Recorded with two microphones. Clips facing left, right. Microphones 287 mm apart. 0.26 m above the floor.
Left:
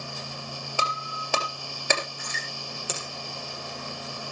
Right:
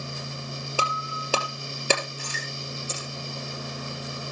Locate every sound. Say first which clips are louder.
0.8 s breaking glass: right 3 dB; 40° right (ahead or behind), 3 m
2.9 s a finger snap: even; 80° left, 6 m